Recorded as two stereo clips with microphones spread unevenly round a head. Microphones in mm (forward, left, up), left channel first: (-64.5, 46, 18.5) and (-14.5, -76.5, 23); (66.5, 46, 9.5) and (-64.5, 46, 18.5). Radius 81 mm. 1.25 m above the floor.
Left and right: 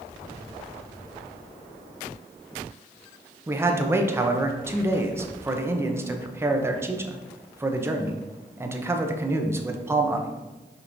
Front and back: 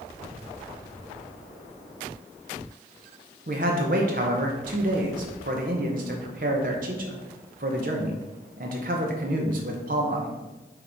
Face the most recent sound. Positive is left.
turn(degrees=-140)